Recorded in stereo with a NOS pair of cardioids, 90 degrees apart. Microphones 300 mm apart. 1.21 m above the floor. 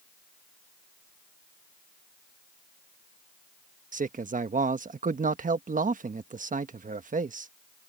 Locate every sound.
3.9 s a man speaking: 25° right